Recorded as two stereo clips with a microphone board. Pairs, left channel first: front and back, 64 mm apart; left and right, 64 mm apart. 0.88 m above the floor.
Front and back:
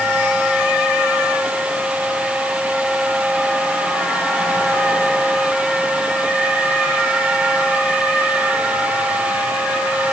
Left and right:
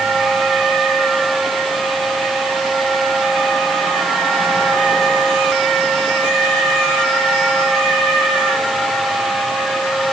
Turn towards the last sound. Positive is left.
No sound to turn to.